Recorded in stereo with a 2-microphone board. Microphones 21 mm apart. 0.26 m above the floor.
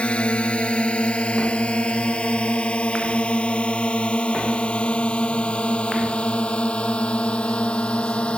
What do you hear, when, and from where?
0.0 s a drone: 70° left (ahead or behind)